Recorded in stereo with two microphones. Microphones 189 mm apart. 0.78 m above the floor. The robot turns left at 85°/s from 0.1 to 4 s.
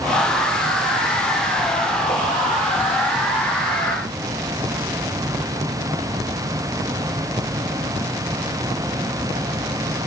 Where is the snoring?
No snoring in this recording.